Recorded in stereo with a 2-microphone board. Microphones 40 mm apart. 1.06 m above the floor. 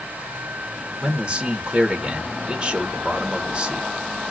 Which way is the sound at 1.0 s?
20° right (ahead or behind).